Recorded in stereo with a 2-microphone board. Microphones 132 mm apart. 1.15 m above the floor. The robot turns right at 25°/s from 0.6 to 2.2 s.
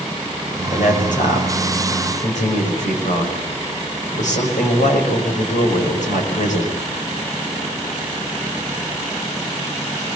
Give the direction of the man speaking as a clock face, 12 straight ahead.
10 o'clock.